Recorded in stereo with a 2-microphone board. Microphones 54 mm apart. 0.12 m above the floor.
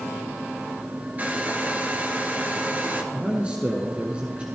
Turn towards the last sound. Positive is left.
turn(degrees=-20)  # may be behind; listen again after turning